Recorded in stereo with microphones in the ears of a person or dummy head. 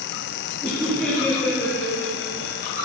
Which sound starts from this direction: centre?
Laughter, at 0.6 s.